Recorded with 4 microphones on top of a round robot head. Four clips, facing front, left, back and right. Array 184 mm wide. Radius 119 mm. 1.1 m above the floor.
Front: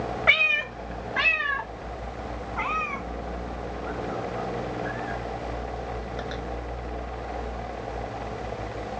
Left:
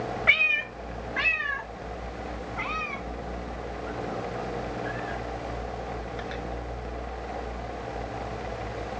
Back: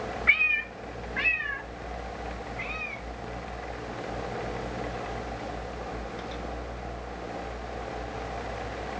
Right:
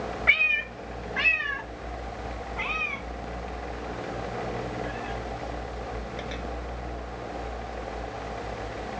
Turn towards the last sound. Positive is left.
turn(degrees=-25)